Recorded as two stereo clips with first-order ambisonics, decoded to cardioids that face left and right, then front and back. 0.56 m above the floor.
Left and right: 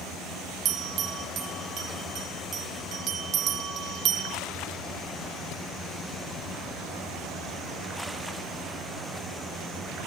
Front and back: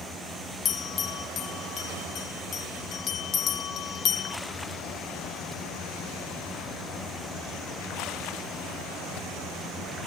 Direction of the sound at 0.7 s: 50° right.